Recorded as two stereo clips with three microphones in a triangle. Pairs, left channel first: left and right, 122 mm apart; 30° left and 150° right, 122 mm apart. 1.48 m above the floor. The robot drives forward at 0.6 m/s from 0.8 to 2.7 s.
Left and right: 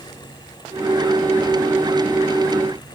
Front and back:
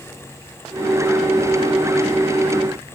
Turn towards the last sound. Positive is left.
No sound to turn to.